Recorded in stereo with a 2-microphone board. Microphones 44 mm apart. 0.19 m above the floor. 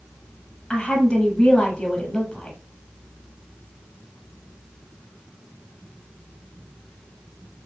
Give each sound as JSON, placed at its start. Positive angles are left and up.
{"t": 0.7, "sound": "a woman speaking", "side_deg": 20, "distance_m": 1.2}